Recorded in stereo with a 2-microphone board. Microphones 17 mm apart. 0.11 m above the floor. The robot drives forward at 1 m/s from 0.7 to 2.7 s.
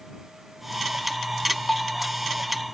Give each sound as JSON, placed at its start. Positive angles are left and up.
{"t": 1.7, "sound": "a bell", "side_deg": 65, "distance_m": 0.7}